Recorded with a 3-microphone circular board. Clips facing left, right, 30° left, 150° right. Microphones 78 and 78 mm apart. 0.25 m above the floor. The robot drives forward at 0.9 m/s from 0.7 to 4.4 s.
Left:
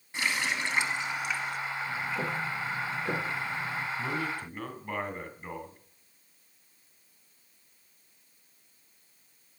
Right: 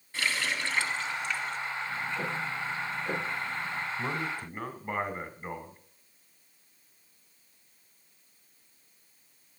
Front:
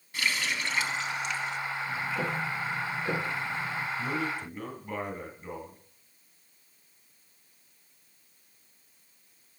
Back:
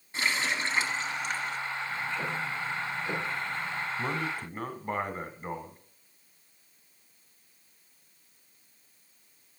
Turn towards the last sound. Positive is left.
turn(degrees=-155)